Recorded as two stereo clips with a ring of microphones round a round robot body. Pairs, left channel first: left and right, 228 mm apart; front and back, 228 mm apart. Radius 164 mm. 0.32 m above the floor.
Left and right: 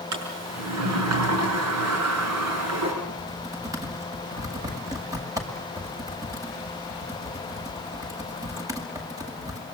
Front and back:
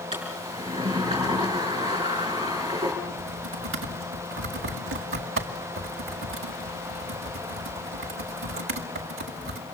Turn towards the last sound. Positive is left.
turn(degrees=-165)